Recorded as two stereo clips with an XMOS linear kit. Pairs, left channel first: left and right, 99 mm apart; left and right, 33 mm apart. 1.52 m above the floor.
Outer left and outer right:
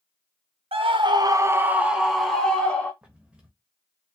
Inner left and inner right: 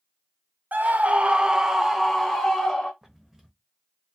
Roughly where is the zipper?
Centre.